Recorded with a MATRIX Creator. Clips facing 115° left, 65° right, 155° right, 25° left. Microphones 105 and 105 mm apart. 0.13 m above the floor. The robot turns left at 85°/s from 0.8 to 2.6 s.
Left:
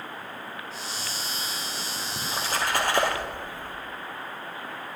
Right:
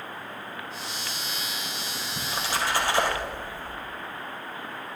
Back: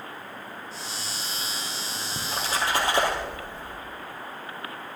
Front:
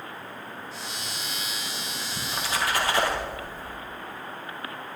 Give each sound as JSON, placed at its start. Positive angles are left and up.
{"t": 2.2, "sound": "a splash", "azimuth_deg": 180, "distance_m": 3.0}